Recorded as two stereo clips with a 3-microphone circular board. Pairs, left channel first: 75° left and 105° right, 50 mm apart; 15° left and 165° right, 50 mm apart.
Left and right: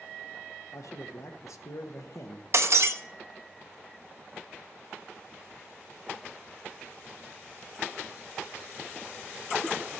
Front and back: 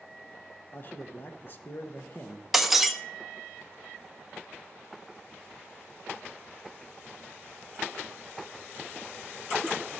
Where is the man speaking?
65° left, 1.1 m.